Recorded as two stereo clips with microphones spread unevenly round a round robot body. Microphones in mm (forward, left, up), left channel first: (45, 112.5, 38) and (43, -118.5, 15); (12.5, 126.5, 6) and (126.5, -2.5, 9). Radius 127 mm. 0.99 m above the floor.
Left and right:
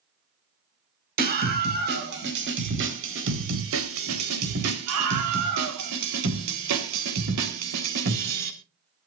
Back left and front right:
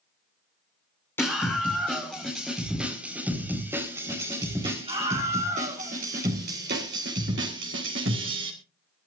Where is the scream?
145° right, 5 m; by 8.5 s 85° right, 4 m.